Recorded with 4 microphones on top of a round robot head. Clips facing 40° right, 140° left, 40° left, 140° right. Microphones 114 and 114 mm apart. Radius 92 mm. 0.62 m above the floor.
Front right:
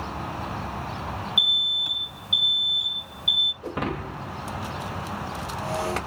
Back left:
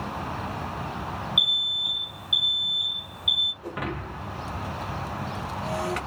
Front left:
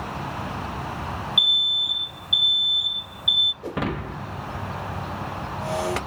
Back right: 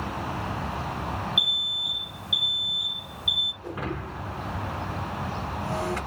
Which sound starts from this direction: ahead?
Breaking glass, at 3.6 s.